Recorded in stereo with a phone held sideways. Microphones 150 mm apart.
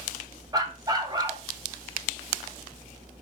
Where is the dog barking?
25° right (ahead or behind), 1.3 m.